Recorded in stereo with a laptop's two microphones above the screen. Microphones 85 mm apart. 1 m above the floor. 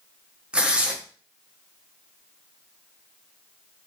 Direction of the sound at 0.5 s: 15° right (ahead or behind).